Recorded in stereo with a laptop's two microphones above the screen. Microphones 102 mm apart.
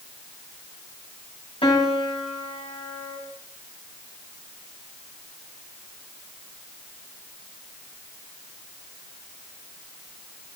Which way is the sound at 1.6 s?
75° left (ahead or behind).